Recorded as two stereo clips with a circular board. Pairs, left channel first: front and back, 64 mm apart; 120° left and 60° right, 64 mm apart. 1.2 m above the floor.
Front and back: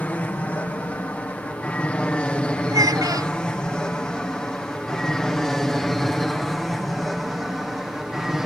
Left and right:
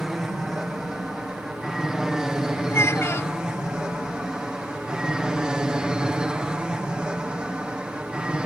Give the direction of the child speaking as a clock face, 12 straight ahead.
7 o'clock.